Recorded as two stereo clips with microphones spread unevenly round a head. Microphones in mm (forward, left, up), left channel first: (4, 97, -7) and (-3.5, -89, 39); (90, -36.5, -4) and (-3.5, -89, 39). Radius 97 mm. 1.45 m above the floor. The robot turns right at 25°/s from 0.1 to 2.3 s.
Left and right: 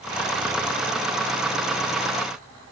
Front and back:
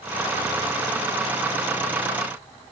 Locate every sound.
Only background noise.